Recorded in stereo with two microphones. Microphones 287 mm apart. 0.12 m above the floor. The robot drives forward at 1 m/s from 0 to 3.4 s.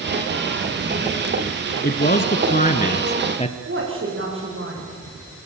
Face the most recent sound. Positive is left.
turn(degrees=-45)  # may be behind; listen again after turning